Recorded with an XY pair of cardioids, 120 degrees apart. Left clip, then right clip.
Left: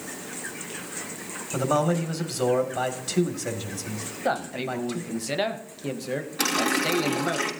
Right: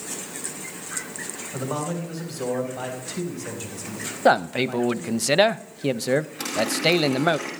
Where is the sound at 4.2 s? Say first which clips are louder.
Right 8 dB; 50° right, 0.5 m.